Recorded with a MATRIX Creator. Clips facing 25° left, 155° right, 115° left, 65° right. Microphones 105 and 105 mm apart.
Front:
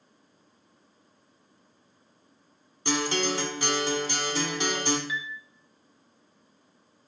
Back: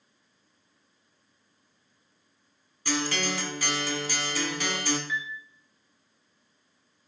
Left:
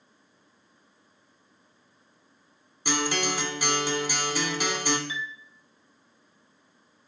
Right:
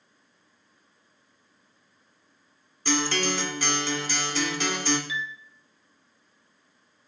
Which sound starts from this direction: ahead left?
A guitar, at 2.9 s.